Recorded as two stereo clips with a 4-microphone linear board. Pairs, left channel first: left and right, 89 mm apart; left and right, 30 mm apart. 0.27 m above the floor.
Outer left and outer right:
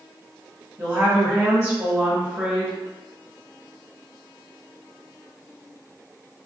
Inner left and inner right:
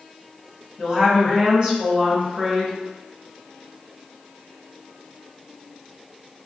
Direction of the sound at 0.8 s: 35° right (ahead or behind).